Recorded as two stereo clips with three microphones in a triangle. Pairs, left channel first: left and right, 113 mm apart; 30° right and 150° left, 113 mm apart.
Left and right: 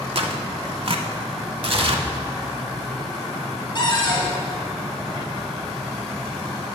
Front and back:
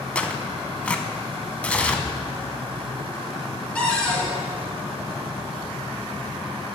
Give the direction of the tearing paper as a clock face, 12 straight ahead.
4 o'clock.